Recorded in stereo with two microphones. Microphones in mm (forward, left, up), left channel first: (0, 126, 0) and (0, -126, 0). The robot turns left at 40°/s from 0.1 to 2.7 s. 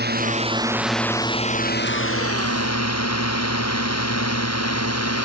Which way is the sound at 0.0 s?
40° right (ahead or behind).